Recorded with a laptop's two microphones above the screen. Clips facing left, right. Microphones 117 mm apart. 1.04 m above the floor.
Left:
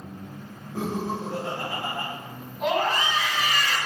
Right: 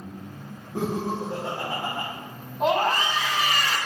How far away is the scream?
About 0.9 m.